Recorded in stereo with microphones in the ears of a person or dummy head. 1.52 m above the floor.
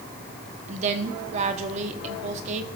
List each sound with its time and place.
0.7 s a woman speaking: 40° right (ahead or behind), 0.9 m